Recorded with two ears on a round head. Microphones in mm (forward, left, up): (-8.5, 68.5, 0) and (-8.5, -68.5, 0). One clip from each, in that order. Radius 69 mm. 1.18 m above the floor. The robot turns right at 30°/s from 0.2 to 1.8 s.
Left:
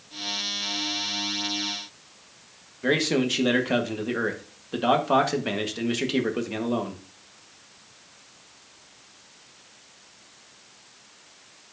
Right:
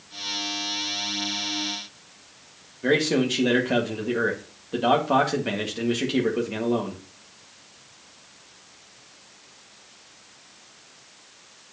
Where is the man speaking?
20° left (ahead or behind), 1.5 m.